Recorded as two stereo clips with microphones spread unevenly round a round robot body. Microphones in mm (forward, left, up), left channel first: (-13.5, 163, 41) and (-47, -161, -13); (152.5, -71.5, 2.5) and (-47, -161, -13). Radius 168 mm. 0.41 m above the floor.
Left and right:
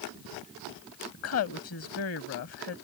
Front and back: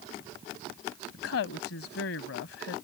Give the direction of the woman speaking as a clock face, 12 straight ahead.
11 o'clock.